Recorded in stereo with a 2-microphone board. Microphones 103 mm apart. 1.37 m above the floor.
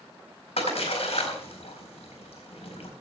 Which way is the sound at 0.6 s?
80° left.